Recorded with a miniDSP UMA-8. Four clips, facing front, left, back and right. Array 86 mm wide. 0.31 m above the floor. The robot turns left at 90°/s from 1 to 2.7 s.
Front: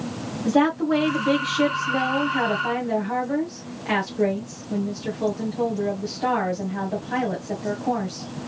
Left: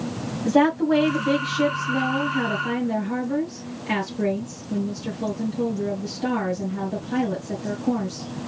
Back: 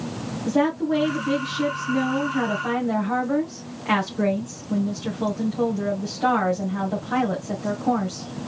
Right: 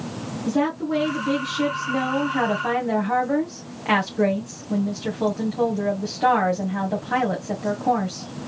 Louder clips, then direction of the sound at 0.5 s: Left 5 dB, front 2 dB; 55° left.